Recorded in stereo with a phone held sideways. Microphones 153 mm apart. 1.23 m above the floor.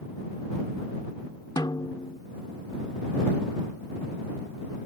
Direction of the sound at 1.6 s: 30° left (ahead or behind).